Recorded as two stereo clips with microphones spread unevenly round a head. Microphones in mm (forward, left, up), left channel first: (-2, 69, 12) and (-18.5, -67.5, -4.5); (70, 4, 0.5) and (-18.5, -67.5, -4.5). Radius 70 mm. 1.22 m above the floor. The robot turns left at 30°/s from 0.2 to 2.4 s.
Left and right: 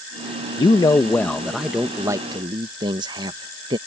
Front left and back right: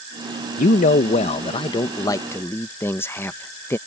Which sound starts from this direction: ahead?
A man speaking, at 0.6 s.